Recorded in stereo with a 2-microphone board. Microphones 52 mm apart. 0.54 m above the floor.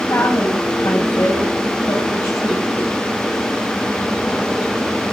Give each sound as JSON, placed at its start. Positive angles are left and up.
{"t": 0.1, "sound": "a woman speaking", "side_deg": 75, "distance_m": 3.5}